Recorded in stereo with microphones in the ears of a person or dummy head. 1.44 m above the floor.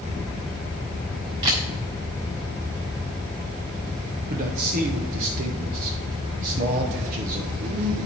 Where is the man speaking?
50° right (ahead or behind), 0.9 m.